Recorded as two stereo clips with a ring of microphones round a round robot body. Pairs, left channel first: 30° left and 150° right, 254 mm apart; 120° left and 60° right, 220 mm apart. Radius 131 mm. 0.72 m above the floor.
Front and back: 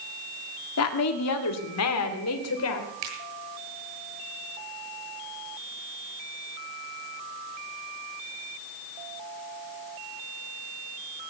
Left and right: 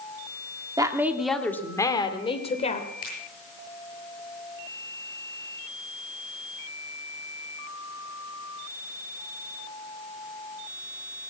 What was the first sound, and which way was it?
A woman speaking, 10° left.